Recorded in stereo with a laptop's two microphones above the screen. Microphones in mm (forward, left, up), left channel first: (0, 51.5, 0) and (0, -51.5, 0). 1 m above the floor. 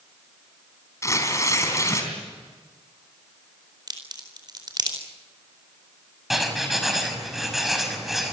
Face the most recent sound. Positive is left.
turn(degrees=0)  # may be behind; listen again after turning